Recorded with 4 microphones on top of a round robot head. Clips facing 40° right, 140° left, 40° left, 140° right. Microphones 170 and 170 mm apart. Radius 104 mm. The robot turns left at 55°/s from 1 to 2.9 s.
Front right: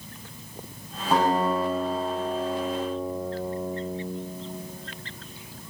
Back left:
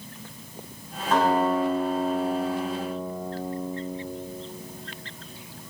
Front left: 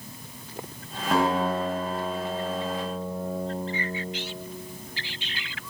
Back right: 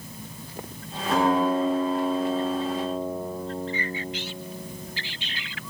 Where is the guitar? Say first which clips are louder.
Back left 1 dB, back right 2 dB; 40° left, 3.5 m; by 4.0 s 60° right, 3.5 m.